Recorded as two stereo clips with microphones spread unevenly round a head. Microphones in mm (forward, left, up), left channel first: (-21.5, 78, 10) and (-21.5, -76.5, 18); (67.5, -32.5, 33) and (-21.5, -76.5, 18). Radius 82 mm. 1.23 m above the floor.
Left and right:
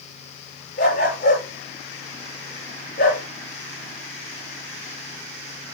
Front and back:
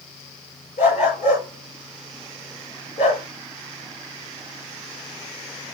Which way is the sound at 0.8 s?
50° left.